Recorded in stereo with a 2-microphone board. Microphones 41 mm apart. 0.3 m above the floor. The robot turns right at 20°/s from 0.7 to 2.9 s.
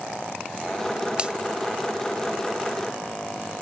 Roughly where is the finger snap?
Right.